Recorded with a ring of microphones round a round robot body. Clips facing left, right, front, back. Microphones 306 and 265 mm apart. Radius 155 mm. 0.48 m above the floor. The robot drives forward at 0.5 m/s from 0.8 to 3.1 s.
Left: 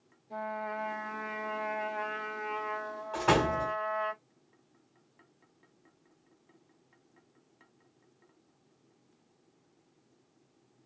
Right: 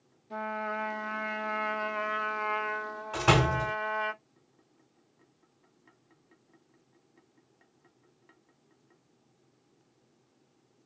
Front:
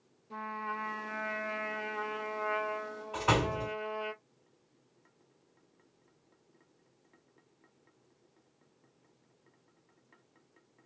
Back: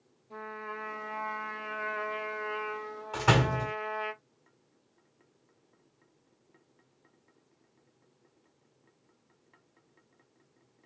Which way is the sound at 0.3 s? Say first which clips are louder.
Right 2 dB, back 2 dB; 50° right.